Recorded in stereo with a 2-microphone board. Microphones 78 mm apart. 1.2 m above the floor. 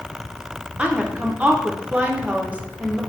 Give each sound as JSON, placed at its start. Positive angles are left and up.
{"t": 0.8, "sound": "a woman speaking", "side_deg": -20, "distance_m": 0.5}